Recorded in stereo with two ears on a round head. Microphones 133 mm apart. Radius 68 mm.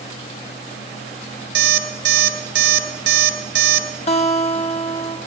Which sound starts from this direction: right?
An alarm clock, at 1.6 s.